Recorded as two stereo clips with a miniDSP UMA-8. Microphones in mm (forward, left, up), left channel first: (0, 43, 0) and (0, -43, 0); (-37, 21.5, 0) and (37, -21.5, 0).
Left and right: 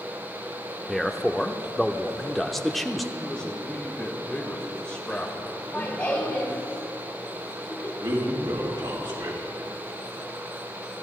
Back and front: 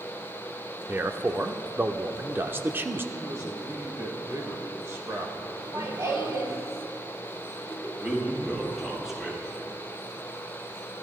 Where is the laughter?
20° left, 3.5 m.